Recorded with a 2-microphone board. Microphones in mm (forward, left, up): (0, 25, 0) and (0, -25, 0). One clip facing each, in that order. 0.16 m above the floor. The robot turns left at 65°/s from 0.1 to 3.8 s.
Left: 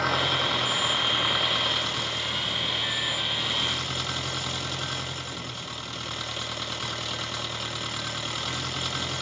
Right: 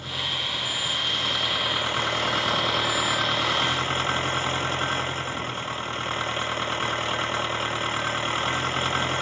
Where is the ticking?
I don't hear ticking.